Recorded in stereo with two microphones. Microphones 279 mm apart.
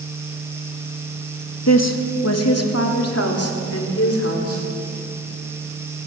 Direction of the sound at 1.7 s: 70° left (ahead or behind).